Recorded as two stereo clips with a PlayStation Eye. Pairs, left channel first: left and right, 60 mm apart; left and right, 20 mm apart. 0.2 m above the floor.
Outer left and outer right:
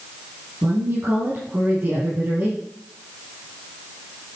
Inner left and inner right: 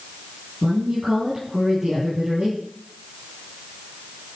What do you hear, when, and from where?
0.6 s a woman speaking: 40° right (ahead or behind), 5.5 m